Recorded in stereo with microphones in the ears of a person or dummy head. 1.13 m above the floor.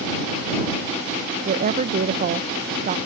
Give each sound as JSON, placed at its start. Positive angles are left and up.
{"t": 1.4, "sound": "a woman speaking", "side_deg": -40}